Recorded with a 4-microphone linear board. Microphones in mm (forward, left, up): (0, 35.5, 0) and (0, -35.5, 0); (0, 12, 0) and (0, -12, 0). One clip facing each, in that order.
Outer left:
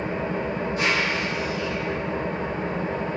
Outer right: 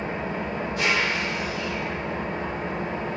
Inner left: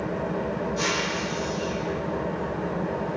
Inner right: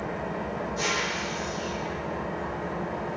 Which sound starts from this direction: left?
An engine running, at 0.0 s.